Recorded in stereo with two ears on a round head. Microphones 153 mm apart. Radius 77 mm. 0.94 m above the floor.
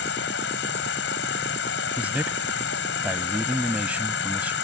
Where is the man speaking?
10° right (ahead or behind).